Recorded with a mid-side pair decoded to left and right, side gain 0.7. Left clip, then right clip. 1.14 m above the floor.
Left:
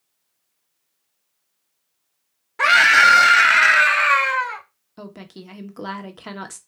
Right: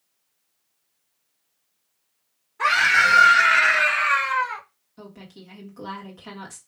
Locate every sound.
2.6 s a scream: 70° left, 1.3 m; by 4.6 s 15° left, 0.8 m
5.0 s a woman speaking: 40° left, 1.1 m